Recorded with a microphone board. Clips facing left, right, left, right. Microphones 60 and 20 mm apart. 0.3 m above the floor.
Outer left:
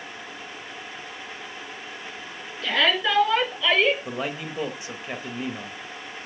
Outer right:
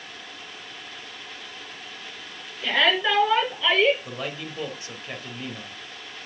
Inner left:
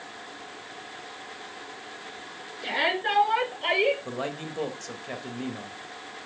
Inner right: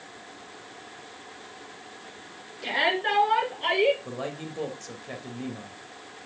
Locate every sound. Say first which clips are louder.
2.6 s a shout: outer right 1 dB, inner right 1 dB; 5° right (ahead or behind), 4.5 m; by 4.0 s 10° right (ahead or behind), 5.5 m
4.0 s a man speaking: outer left 3 dB, inner left 2 dB; 15° left (ahead or behind), 0.9 m